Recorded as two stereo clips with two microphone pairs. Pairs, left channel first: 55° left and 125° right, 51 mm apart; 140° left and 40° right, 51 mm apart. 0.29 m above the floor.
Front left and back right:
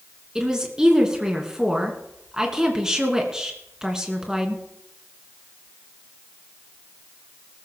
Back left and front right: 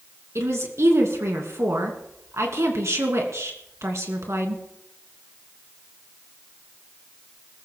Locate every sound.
0.3 s a woman speaking: 50° right, 2.5 m